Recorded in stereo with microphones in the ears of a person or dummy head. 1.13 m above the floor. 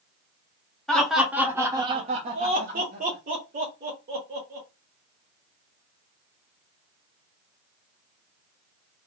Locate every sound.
0.9 s laughter: 5° left (ahead or behind), 0.8 m; by 4.7 s 35° right (ahead or behind), 1.5 m